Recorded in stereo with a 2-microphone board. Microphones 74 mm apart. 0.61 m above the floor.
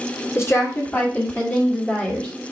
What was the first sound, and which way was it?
A woman speaking, 30° left (ahead or behind).